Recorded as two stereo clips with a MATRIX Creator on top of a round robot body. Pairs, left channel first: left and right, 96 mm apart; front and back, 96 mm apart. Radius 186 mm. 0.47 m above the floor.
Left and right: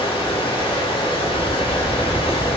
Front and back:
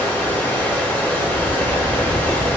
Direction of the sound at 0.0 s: 75° left.